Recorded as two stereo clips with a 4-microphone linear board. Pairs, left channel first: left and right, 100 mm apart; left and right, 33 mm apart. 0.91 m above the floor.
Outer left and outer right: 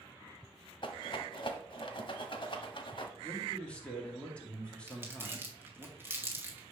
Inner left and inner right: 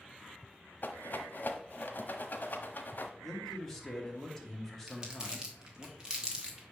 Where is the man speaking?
10° left (ahead or behind), 2 m.